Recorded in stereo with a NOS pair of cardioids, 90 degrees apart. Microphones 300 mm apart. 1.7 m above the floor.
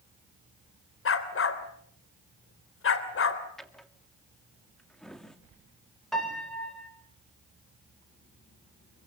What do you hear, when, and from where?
1.1 s a dog barking: 50° left, 3.5 m
3.6 s a drawer: straight ahead, 2.5 m
6.1 s a piano: straight ahead, 8.5 m